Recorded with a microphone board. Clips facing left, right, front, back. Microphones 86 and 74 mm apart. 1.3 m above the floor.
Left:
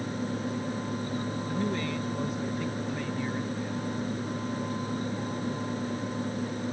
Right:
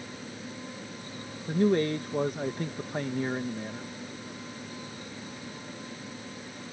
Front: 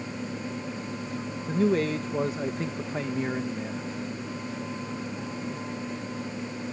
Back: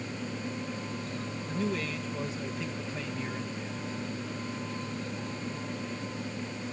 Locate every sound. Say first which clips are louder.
1.5 s a man speaking: right 9 dB, front 9 dB; 45° right